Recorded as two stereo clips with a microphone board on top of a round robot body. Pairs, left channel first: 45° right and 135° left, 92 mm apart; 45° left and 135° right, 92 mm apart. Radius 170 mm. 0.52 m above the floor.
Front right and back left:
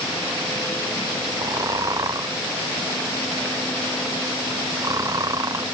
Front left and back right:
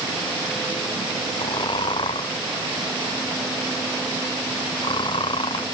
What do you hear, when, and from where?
1.4 s snoring: 80° left